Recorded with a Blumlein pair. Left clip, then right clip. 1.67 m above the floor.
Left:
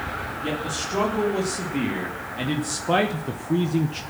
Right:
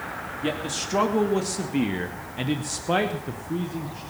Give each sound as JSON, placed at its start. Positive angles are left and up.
{"t": 0.4, "sound": "a man speaking", "azimuth_deg": -15, "distance_m": 3.0}